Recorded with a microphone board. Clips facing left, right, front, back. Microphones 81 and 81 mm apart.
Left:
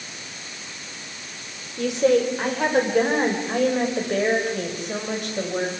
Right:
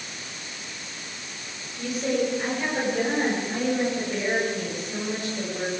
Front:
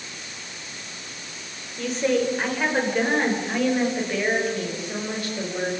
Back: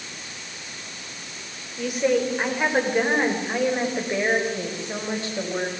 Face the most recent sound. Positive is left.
turn(degrees=115)